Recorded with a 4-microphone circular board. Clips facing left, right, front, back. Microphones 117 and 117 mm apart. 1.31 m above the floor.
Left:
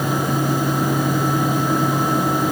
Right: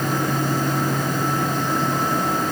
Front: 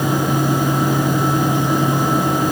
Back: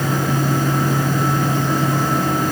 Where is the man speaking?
I don't hear a man speaking.